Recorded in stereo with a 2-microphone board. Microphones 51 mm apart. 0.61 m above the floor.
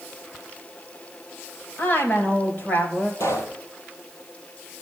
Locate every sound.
1.8 s a woman speaking: 35° left (ahead or behind), 3.5 m
3.2 s a pop: 70° left (ahead or behind), 3.5 m